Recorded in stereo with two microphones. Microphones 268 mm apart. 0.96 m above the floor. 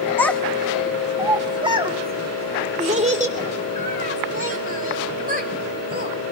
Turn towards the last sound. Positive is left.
turn(degrees=-35)  # may be behind; listen again after turning